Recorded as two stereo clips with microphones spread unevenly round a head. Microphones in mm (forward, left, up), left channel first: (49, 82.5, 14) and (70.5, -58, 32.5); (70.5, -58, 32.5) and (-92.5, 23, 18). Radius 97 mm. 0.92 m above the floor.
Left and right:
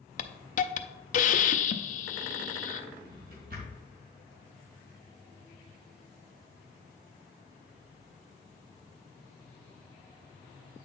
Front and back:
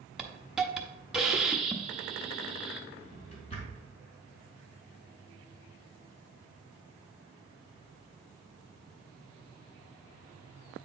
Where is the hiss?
65° left, 0.7 m.